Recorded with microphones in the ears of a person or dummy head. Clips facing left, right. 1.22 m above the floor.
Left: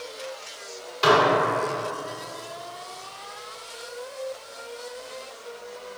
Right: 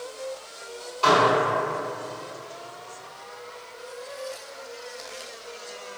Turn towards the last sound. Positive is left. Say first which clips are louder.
# left 1 dB
turn(degrees=25)  # may be behind; listen again after turning